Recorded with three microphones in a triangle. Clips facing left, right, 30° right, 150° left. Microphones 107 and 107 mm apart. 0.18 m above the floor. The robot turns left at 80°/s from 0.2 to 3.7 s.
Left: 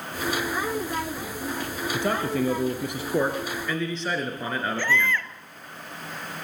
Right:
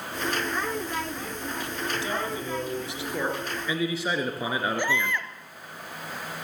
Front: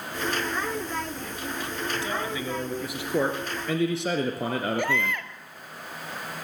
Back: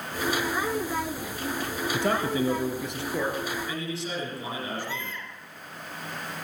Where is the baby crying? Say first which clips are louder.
Left 2 dB, front 8 dB; 20° right, 1.3 m.